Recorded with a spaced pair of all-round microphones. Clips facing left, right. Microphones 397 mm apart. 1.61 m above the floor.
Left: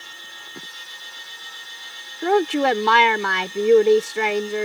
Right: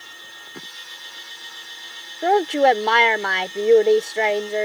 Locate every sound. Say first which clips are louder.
2.2 s a woman speaking: right 1 dB; 20° left (ahead or behind)